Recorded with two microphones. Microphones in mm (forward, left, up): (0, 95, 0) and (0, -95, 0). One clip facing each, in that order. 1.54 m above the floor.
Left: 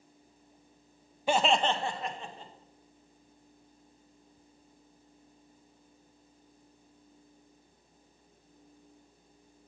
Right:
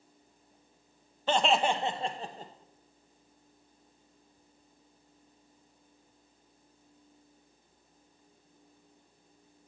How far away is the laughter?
About 0.6 m.